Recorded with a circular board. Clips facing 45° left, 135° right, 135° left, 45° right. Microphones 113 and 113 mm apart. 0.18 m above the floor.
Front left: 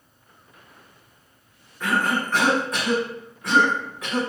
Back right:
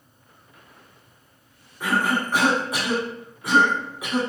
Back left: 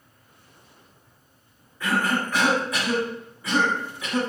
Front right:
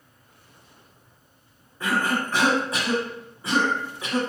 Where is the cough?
65° right, 1.3 m.